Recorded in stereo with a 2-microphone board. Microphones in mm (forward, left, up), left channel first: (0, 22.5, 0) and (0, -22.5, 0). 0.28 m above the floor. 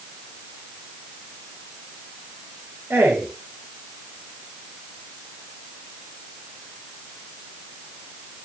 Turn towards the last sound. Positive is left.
turn(degrees=-55)  # may be behind; listen again after turning